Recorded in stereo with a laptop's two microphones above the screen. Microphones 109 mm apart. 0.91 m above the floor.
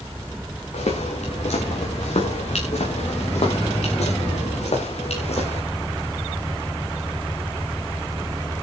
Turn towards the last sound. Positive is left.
turn(degrees=70)  # may be behind; listen again after turning